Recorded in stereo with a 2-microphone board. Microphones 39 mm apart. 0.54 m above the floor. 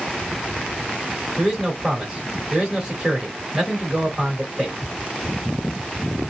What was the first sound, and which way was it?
A man speaking, 20° right (ahead or behind).